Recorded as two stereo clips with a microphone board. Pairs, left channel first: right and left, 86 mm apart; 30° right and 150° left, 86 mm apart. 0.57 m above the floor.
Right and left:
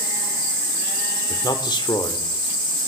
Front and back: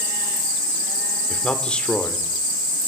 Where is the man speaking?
105° right, 1.3 m.